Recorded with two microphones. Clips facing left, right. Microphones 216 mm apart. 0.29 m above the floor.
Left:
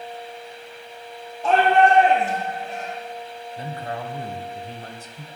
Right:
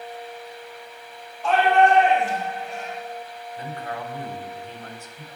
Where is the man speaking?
35° left (ahead or behind), 1.5 m.